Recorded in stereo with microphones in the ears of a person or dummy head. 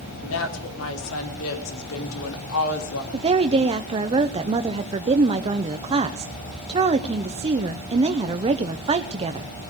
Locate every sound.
0.2 s a woman speaking: 75° left (ahead or behind), 4 m; by 3.0 s 80° left, 2.5 m
3.1 s a woman speaking: 30° right (ahead or behind), 0.8 m